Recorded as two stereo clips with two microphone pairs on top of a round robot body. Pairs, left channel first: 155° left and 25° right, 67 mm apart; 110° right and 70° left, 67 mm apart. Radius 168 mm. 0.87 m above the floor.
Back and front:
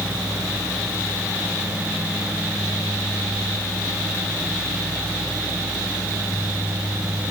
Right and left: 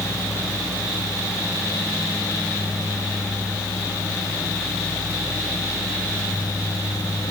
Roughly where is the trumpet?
No trumpet in this recording.